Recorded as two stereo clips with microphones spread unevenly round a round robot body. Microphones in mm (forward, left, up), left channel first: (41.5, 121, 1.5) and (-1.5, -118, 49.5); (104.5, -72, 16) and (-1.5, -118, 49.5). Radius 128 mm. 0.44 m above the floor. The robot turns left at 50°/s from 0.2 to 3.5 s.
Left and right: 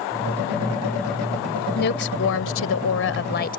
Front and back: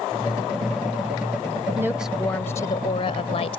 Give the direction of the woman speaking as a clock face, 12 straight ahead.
8 o'clock.